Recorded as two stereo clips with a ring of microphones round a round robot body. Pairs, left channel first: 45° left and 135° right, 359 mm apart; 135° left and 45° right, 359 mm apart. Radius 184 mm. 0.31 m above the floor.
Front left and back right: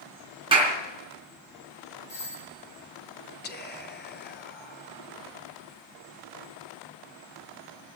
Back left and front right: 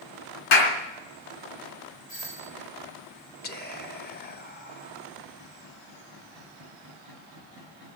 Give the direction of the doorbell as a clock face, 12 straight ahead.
8 o'clock.